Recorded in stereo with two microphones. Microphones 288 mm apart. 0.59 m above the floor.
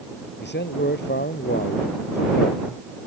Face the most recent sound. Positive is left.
turn(degrees=35)  # may be behind; listen again after turning